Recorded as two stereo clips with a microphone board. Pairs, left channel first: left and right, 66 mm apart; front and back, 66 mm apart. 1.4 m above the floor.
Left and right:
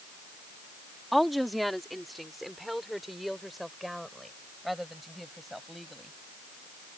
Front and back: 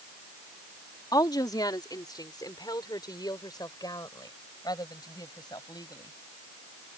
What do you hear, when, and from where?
1.1 s a woman speaking: straight ahead